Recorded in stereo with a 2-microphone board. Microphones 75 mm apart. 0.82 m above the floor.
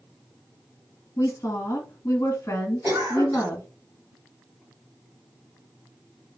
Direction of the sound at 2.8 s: 65° right (ahead or behind).